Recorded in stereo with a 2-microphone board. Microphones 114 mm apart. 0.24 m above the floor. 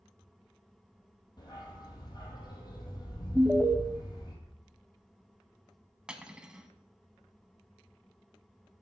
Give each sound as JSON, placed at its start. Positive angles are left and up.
{"t": 1.4, "sound": "a dog barking", "side_deg": 35, "distance_m": 3.0}
{"t": 3.4, "sound": "an alarm", "side_deg": -10, "distance_m": 0.8}
{"t": 6.1, "sound": "cutlery clinking", "side_deg": -10, "distance_m": 1.0}